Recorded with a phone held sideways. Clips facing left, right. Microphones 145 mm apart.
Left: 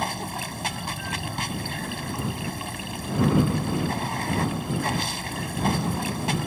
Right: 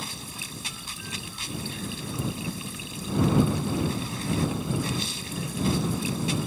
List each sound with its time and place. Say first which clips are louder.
0.0 s running water: left 10 dB; 65° left (ahead or behind)